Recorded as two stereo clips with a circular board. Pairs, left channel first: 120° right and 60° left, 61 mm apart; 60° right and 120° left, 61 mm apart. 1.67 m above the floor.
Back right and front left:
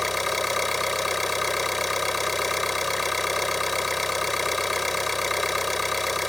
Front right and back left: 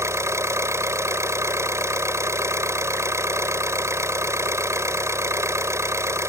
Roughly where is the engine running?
Behind left.